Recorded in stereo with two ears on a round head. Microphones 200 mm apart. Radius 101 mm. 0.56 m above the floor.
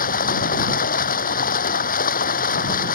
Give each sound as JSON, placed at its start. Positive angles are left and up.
{"t": 0.0, "sound": "running water", "side_deg": 40}